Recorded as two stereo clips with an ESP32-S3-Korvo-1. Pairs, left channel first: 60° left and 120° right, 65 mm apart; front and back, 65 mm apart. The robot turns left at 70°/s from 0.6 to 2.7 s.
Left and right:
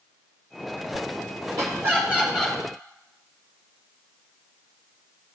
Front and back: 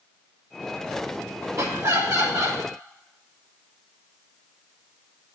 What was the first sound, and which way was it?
Laughter, 140° right.